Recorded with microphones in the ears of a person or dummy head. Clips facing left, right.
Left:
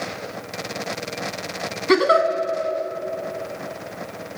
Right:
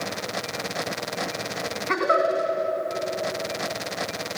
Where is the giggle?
55° left (ahead or behind), 3 m.